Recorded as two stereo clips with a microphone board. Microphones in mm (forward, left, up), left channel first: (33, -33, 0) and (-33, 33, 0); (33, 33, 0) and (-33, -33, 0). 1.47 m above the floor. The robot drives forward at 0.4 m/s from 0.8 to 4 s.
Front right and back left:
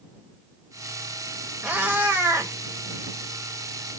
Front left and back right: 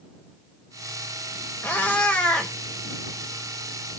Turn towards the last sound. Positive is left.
turn(degrees=145)